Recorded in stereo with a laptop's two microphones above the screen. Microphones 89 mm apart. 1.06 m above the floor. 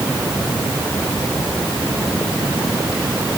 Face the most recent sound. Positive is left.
No sound to turn to.